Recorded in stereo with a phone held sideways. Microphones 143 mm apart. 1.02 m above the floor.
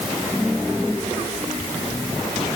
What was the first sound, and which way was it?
Only background noise.